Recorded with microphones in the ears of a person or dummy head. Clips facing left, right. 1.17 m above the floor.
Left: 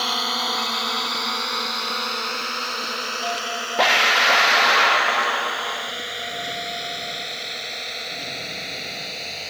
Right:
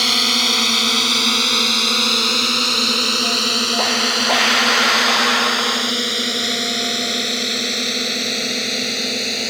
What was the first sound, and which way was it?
A drone, 30° right (ahead or behind).